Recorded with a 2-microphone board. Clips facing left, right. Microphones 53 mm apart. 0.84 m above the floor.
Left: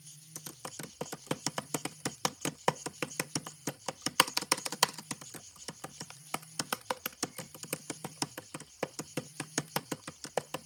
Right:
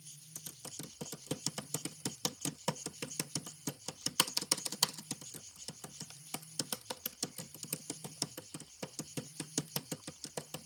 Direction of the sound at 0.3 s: 60° left (ahead or behind).